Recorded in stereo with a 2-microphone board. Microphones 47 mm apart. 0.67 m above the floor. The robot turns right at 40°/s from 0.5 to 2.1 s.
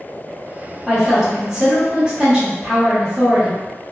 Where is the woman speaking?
Centre (ahead or behind), 1.1 m; by 3.6 s 15° right (ahead or behind), 1.1 m.